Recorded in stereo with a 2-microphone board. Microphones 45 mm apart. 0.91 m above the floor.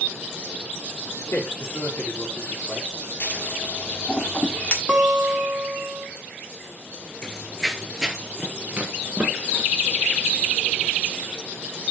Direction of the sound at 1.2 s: 60° left (ahead or behind).